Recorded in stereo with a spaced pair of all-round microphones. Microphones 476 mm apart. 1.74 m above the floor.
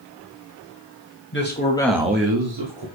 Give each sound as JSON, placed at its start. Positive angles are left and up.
{"t": 1.3, "sound": "a man speaking", "side_deg": 25, "distance_m": 1.4}